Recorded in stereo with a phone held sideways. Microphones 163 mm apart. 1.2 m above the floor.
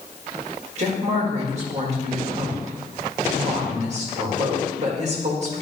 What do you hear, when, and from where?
0.8 s a woman speaking: 45° right (ahead or behind), 2 m